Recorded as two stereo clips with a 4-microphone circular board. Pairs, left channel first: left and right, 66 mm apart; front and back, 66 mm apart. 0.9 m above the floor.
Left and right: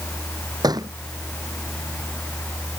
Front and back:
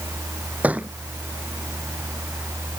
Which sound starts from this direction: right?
A thud, at 0.6 s.